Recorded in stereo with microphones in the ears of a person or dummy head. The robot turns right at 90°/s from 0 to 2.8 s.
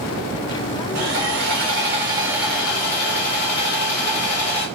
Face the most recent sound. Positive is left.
turn(degrees=30)